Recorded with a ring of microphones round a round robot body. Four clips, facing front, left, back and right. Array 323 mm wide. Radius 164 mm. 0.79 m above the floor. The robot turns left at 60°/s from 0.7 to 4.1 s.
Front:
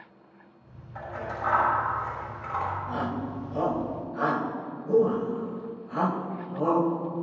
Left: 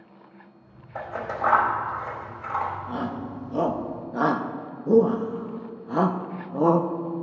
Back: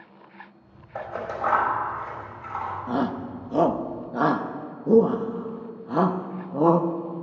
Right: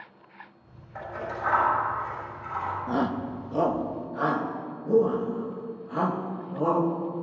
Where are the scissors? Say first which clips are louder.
Left 4 dB, back 4 dB; 155° left, 4 m; by 2.8 s 45° left, 4 m.